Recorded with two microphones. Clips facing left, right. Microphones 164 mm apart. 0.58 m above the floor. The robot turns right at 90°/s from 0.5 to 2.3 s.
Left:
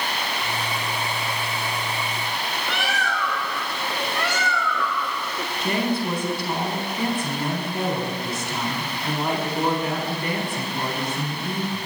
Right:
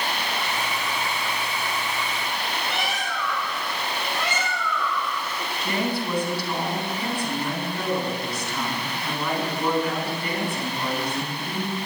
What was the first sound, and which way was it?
A bird, 75° left (ahead or behind).